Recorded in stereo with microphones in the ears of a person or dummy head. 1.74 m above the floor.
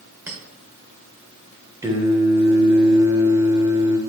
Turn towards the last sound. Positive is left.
turn(degrees=-15)  # may be behind; listen again after turning